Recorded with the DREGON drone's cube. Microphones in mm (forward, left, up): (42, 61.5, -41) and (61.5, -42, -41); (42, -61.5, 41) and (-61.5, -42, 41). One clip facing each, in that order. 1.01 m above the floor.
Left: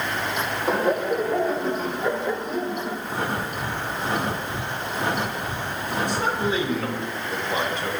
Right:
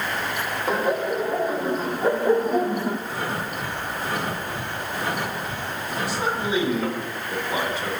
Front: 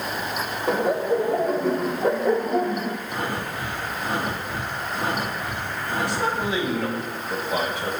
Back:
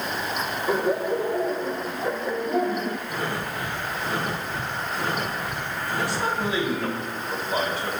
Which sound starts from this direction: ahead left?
Breathing, at 3.1 s.